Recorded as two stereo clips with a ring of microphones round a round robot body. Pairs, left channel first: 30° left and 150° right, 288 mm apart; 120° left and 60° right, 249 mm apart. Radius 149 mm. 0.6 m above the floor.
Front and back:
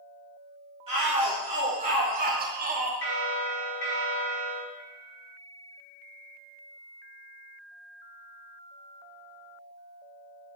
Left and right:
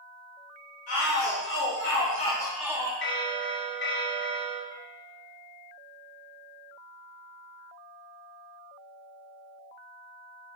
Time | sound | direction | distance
0.9 | a shout | 140° left | 2.5 m
3.0 | a bell | 75° left | 2 m